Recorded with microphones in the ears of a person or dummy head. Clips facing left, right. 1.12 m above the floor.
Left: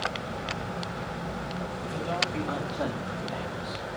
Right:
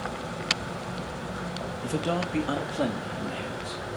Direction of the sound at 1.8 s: 50° right (ahead or behind).